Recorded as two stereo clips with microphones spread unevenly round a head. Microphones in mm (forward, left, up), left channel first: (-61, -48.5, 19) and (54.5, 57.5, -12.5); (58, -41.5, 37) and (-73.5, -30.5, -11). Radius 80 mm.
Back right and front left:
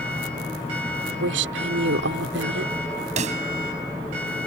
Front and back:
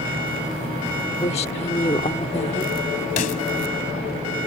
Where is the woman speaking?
50° left.